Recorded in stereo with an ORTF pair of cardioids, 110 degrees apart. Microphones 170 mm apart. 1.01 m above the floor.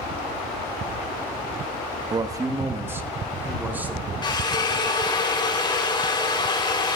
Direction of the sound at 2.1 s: 25° right.